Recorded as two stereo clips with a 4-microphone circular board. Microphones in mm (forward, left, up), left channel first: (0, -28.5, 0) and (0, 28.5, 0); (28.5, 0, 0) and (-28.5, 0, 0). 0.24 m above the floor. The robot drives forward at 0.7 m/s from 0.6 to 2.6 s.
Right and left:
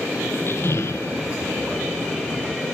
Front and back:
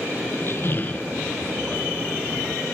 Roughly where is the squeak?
Ahead right.